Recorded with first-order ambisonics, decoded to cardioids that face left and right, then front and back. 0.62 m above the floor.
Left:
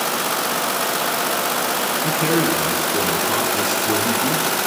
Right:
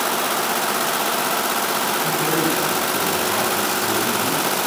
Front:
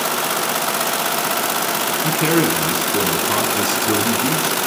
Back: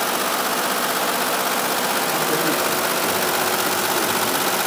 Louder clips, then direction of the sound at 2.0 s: Left 1 dB, front 3 dB; 15° left.